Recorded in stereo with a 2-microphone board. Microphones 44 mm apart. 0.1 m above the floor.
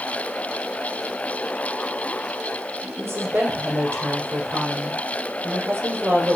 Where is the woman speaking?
65° right (ahead or behind), 5 m.